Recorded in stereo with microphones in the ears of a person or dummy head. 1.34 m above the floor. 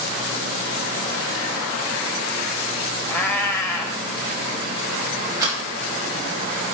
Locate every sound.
3.1 s a cat meowing: 15° left (ahead or behind), 1.2 m
5.4 s a rattle: 20° right (ahead or behind), 5 m